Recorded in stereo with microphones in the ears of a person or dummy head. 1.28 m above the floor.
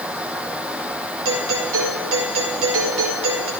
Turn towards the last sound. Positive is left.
turn(degrees=-75)  # may be behind; listen again after turning